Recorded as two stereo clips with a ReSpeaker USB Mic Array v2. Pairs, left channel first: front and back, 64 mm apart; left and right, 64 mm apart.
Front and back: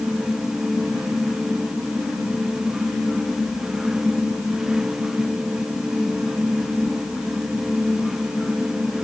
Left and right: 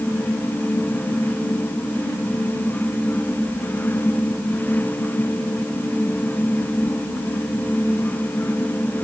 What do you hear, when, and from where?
Only background noise.